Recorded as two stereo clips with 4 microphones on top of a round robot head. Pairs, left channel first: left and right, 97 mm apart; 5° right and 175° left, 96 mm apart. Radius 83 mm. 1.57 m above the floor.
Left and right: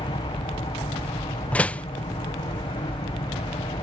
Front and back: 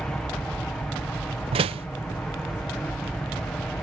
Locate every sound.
0.0 s an aircraft: 75° left
1.5 s a door slam: 165° left